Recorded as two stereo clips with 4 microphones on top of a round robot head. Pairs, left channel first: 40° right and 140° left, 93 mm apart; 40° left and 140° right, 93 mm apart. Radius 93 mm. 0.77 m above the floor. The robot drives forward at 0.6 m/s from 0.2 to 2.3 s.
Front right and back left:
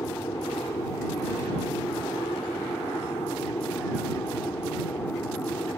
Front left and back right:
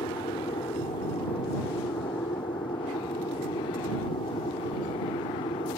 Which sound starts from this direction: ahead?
An aircraft, at 0.0 s.